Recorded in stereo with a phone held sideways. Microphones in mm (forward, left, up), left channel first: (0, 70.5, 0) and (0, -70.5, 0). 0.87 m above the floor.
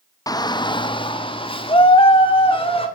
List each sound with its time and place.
0.3 s a shout: 25° left (ahead or behind), 0.6 m; by 2.9 s 40° left (ahead or behind), 2.5 m